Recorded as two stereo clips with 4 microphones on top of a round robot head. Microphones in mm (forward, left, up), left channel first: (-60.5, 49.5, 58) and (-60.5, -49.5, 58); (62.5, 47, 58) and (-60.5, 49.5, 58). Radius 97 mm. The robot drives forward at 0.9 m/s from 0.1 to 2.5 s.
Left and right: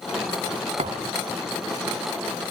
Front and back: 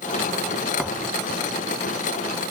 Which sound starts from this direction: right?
A thud, at 0.8 s.